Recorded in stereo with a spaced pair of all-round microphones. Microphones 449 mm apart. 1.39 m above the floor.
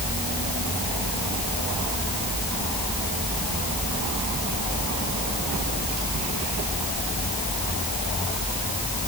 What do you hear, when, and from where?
Only background noise.